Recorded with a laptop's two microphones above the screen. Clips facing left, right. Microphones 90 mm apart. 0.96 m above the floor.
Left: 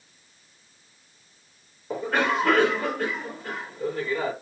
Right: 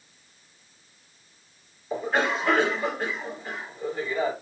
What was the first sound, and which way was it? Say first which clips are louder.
A cough: left 1 dB; 80° left.